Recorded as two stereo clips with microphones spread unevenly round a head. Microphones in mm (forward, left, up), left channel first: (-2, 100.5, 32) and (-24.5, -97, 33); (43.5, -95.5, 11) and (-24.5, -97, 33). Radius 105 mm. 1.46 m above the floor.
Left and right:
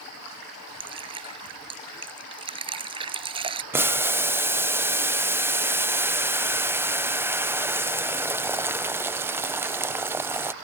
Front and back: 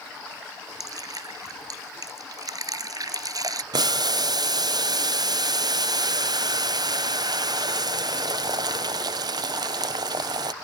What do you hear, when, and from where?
0.8 s dripping: 160° right
3.7 s boiling: 175° right